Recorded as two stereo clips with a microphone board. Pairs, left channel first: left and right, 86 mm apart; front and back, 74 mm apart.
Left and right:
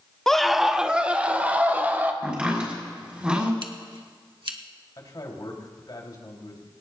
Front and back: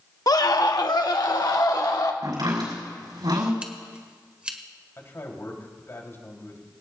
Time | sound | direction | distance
0.3 | a scream | 5° left | 0.8 m
2.2 | chopping | 165° right | 5.5 m
3.6 | scissors | 105° right | 1.4 m
5.0 | a man speaking | 55° left | 3 m